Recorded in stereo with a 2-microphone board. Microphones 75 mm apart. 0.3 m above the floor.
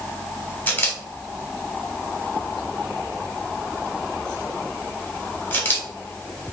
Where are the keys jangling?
No keys jangling in this recording.